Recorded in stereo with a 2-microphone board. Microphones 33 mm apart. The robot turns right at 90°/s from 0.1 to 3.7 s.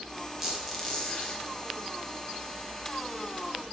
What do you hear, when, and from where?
0.4 s a squeak: 30° right, 0.8 m; by 1.4 s 60° left, 0.8 m